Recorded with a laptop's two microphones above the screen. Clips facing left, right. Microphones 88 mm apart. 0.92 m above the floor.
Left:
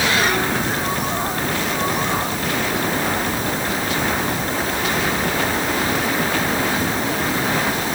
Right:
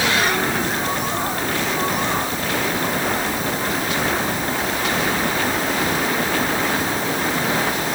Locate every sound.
Only background noise.